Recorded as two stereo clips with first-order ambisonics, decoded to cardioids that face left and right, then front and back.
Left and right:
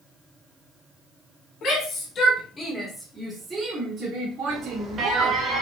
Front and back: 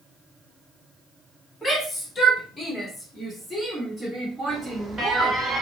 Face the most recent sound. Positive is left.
turn(degrees=-110)